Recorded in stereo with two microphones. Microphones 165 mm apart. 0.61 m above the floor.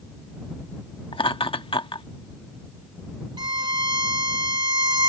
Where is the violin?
30° right (ahead or behind).